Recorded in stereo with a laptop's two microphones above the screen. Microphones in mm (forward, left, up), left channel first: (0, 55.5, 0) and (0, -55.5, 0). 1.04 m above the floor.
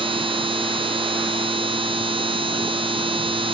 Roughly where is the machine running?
Right.